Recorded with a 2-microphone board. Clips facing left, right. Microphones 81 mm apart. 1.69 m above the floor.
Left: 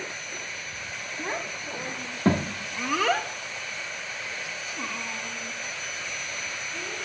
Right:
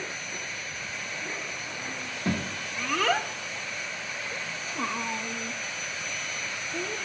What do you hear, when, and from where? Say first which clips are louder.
1.2 s a child speaking: left 4 dB; 60° left (ahead or behind), 1.5 m; by 7.0 s 55° right (ahead or behind), 3 m